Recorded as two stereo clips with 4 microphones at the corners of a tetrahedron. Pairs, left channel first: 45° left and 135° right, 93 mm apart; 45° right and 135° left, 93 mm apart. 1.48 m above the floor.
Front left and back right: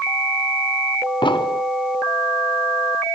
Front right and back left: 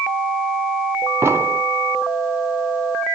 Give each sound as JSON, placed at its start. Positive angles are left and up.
{"t": 1.2, "sound": "an explosion", "azimuth_deg": 70, "distance_m": 0.7}